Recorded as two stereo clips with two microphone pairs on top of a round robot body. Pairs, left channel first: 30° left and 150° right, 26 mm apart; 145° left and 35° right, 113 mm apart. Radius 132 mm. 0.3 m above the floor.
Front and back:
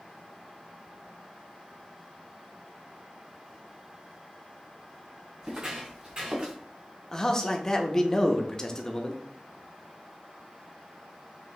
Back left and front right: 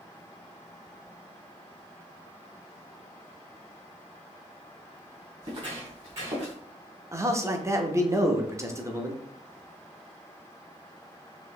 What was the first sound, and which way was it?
Footsteps, 85° right.